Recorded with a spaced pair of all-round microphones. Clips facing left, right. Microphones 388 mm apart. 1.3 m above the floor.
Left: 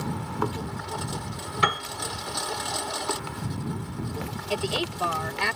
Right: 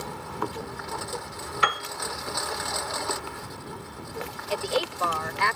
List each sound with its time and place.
0.0 s a lawn mower: 45° left (ahead or behind)
1.6 s a piano: 50° left (ahead or behind)
4.5 s a woman speaking: 45° left (ahead or behind)